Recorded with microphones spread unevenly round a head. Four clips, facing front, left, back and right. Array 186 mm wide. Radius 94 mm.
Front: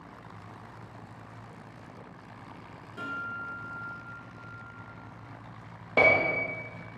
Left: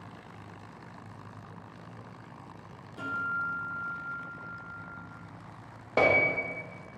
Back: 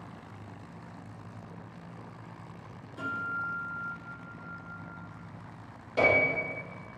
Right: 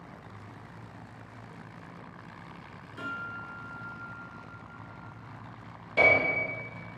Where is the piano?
45° left, 0.5 m.